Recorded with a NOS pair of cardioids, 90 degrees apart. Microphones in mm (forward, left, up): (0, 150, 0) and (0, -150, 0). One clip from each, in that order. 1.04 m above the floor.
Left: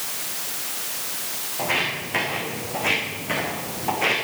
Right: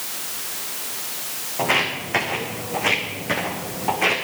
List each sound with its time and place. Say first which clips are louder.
1.6 s footsteps: right 3 dB; 40° right, 4.5 m; by 4.2 s 20° right, 4.5 m